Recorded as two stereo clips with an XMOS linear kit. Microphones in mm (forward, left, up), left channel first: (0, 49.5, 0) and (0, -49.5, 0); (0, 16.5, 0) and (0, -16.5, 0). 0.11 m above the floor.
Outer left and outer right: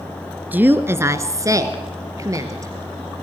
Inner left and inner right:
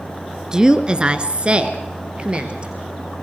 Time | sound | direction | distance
0.5 | a woman speaking | 15° right (ahead or behind) | 1.4 m